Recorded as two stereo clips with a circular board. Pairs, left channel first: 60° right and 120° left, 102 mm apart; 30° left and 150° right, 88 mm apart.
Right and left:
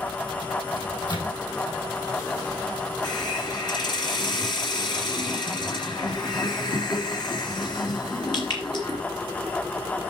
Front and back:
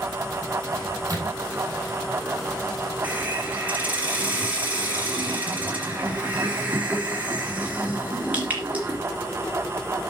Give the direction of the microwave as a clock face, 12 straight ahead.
3 o'clock.